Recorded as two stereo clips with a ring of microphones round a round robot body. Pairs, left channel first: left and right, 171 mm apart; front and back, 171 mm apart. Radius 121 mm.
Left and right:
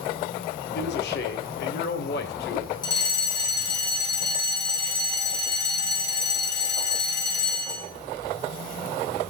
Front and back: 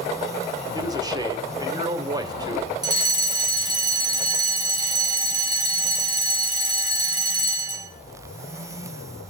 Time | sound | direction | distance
0.7 | a man speaking | 115° left | 1.8 m
2.8 | a fire alarm | 135° left | 1.8 m